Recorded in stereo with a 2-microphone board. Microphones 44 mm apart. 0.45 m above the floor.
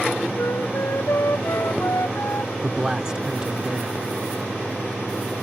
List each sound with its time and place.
0.4 s a flute: 85° left
2.6 s a man speaking: 15° right (ahead or behind)